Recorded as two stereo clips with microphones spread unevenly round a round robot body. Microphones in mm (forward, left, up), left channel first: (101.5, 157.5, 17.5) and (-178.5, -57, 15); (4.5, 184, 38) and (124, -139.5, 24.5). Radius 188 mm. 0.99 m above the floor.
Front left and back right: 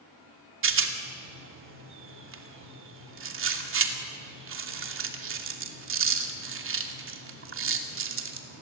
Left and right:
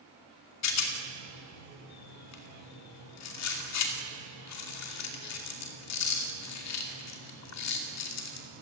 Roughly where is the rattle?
Behind.